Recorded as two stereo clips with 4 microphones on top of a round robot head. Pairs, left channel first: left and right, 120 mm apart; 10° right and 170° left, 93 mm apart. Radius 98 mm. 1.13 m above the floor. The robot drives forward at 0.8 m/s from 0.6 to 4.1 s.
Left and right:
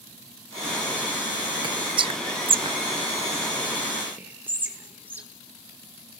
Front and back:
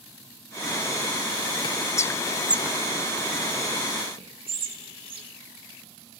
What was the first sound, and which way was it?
Whispering, 40° right.